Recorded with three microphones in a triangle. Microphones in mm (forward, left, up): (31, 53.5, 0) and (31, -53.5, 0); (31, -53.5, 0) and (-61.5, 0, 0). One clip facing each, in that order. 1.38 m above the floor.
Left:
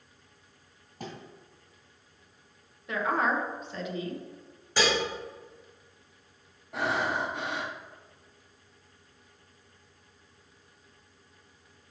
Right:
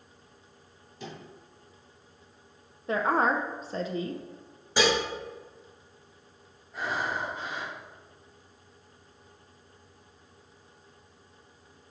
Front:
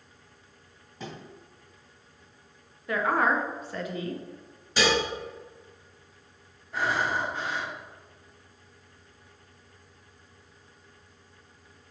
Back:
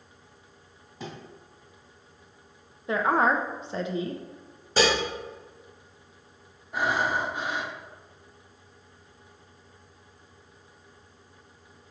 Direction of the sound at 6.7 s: 75° left.